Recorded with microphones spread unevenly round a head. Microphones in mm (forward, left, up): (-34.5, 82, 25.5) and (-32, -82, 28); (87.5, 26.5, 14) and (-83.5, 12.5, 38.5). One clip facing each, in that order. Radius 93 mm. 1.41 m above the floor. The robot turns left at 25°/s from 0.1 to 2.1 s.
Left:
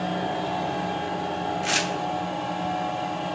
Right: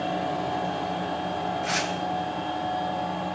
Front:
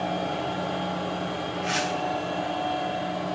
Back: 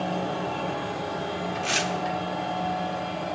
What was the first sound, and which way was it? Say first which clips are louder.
Tearing paper: left 1 dB, front 3 dB; 145° left.